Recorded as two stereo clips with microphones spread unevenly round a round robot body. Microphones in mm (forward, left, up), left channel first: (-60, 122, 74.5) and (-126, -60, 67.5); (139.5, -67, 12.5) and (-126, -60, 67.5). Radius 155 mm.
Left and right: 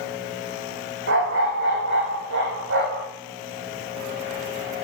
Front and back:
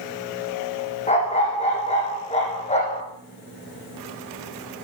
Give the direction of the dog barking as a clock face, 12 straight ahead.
2 o'clock.